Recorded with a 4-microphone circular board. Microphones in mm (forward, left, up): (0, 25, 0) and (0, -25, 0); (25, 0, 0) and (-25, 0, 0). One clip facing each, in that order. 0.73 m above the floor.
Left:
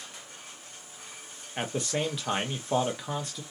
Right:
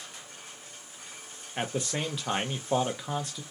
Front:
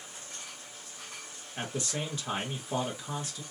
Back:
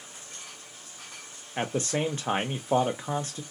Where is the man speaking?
175° left, 0.6 m.